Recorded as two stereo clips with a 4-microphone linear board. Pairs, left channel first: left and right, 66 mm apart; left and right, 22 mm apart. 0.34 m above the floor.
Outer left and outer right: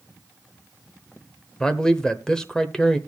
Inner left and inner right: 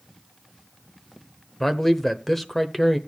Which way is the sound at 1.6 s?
10° left (ahead or behind).